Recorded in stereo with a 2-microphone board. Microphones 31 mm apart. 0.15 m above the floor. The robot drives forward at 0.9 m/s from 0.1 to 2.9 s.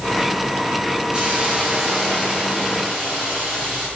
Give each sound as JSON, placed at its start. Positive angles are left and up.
{"t": 1.1, "sound": "a hiss", "side_deg": -30, "distance_m": 8.5}